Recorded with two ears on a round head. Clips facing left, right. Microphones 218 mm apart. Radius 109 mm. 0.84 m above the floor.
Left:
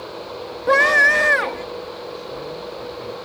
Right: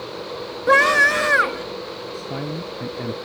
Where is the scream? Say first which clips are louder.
Even; 15° right (ahead or behind).